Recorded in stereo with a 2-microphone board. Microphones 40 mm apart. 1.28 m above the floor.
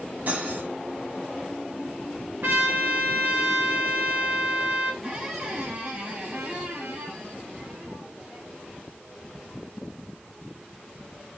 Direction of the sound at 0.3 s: 45° right (ahead or behind).